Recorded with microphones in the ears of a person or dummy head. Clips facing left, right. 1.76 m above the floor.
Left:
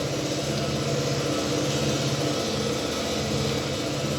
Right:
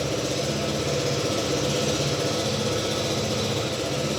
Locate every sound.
0.0 s an engine running: 40° right (ahead or behind), 1.3 m